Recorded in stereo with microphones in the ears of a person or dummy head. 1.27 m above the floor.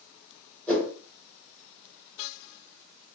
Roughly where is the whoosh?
Centre.